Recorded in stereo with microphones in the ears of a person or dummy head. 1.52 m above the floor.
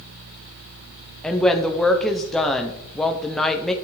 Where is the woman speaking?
5° left (ahead or behind), 0.6 m.